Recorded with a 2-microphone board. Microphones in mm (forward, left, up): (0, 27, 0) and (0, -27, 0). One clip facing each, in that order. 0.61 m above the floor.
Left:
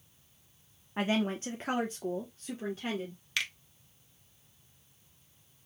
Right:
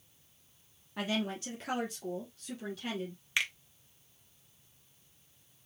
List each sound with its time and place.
1.0 s a woman speaking: 30° left (ahead or behind), 1.0 m; by 3.2 s 35° left (ahead or behind), 2 m
3.4 s a finger snap: 20° right (ahead or behind), 1.1 m